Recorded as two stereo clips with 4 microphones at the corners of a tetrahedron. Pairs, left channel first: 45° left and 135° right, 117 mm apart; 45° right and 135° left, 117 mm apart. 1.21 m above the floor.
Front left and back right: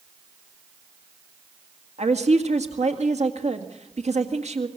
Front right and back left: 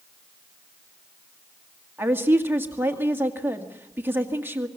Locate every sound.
2.0 s a woman speaking: 155° right, 2 m